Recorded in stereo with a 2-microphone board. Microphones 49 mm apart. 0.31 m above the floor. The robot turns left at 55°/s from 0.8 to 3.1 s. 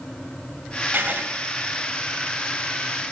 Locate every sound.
0.9 s writing: 45° right (ahead or behind), 1.3 m; by 1.3 s 35° right (ahead or behind), 1.3 m